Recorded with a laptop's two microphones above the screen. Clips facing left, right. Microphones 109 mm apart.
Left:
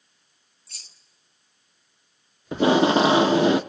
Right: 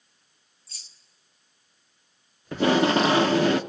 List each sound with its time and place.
0.7 s keys jangling: 65° left (ahead or behind), 1.0 m
2.5 s tape being pulled: 20° left (ahead or behind), 0.8 m